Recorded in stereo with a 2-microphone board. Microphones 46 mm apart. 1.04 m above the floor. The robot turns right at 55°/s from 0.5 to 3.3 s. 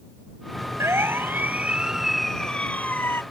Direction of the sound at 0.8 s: 75° right (ahead or behind).